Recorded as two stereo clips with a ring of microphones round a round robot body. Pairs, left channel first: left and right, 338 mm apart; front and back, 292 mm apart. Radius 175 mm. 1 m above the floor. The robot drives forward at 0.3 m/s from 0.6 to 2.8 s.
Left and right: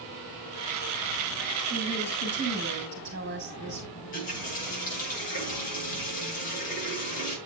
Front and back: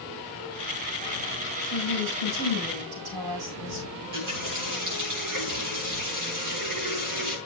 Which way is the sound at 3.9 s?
160° left.